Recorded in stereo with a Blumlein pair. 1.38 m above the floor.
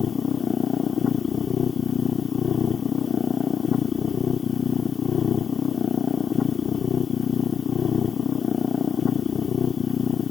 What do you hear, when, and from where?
0.0 s a machine running: 20° left